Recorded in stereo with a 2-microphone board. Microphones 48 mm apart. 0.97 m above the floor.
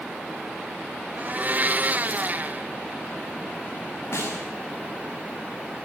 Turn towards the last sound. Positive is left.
turn(degrees=70)  # may be behind; listen again after turning